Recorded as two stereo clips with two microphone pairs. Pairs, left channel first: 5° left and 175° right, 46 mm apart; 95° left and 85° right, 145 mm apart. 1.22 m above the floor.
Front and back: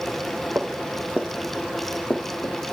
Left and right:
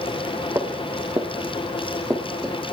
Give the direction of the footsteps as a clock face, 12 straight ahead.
5 o'clock.